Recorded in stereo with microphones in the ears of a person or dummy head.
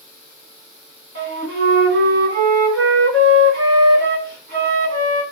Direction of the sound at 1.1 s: 70° right (ahead or behind).